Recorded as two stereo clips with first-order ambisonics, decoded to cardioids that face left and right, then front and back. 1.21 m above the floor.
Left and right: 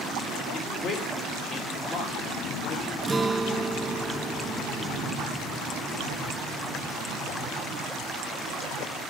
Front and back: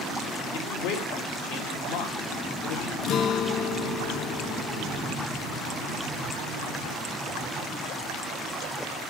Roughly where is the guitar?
Ahead.